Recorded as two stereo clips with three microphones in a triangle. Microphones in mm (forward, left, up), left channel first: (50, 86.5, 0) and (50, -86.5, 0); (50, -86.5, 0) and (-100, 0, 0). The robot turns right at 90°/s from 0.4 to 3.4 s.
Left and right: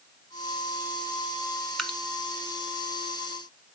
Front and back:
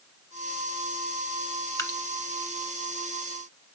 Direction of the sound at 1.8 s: Straight ahead.